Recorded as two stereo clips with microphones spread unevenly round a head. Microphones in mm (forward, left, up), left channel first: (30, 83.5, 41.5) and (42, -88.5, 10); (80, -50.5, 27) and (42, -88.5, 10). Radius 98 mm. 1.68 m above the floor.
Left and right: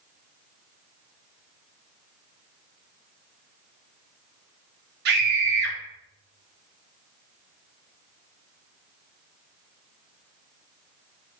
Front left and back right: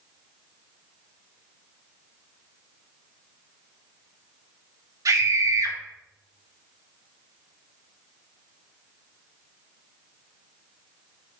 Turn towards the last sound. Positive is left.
turn(degrees=-125)